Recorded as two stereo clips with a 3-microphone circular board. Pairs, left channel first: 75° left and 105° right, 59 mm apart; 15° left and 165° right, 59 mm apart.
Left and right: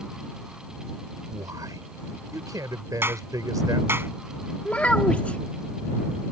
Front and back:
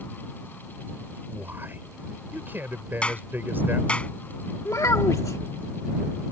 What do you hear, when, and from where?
1.3 s a man speaking: 110° right
3.0 s a clap: 55° right
4.7 s a child speaking: 10° left